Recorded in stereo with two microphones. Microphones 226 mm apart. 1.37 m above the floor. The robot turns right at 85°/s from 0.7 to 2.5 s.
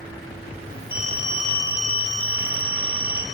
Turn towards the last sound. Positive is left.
turn(degrees=90)